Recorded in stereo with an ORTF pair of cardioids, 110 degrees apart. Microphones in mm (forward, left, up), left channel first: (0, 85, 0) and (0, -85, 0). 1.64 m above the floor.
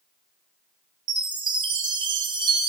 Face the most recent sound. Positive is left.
turn(degrees=-25)